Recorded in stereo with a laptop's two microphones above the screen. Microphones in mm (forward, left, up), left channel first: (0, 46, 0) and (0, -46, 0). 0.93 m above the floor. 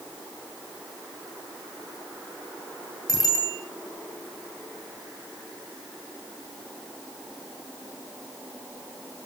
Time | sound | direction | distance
3.1 | a bicycle bell | 45° left (ahead or behind) | 10 m